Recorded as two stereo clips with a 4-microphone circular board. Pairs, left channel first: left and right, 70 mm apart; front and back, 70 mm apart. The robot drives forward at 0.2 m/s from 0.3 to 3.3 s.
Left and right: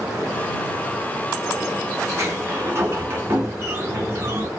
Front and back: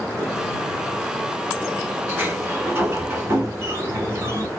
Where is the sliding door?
125° right, 0.9 m; by 4.5 s 140° right, 1.0 m.